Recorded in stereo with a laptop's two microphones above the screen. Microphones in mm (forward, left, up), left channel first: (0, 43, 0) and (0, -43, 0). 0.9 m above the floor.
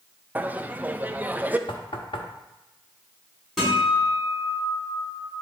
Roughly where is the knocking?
Left.